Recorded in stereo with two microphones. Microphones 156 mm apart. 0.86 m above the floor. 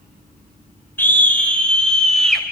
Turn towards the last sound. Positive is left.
turn(degrees=5)  # may be behind; listen again after turning